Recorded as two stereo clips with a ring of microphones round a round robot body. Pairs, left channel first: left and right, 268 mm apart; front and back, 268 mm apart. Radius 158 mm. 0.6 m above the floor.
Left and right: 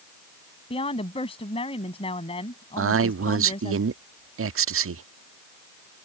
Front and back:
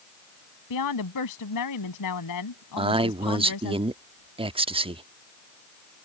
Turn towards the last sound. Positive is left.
turn(degrees=-115)